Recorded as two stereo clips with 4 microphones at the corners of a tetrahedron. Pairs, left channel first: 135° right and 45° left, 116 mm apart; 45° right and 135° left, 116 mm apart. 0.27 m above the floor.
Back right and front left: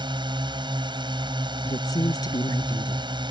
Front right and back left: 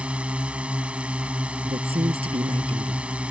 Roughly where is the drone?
Ahead left.